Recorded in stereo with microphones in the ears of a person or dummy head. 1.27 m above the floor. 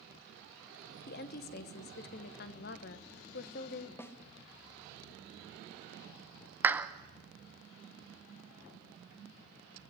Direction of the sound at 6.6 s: 10° right (ahead or behind).